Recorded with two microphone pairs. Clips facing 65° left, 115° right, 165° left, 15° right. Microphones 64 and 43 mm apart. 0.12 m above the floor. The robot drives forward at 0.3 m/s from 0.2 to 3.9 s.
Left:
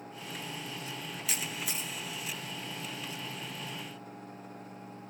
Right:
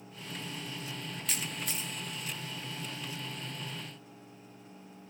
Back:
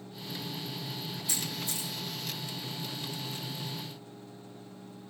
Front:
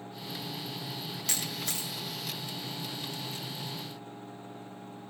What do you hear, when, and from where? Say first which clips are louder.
1.3 s a camera shutter: left 1 dB, front 1 dB; 20° right, 4.5 m